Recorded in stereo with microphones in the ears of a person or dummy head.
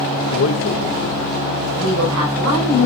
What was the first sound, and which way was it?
A man speaking, 65° left (ahead or behind).